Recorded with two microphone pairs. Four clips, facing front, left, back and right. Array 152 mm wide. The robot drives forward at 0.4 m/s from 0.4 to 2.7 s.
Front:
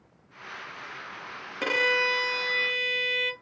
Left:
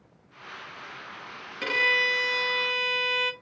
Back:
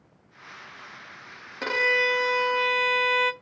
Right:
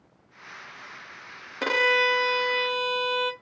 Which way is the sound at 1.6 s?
75° right.